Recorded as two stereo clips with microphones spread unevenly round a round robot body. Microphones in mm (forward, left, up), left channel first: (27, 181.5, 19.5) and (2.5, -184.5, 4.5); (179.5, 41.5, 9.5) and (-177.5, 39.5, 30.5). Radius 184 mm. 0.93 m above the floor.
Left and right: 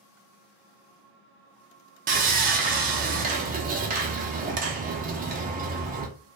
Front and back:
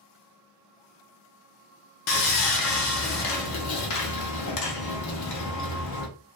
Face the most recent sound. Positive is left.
turn(degrees=-30)